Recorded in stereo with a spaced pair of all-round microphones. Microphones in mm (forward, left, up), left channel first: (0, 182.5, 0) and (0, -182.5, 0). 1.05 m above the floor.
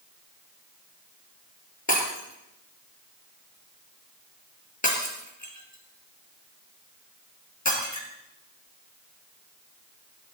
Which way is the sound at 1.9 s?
50° left (ahead or behind).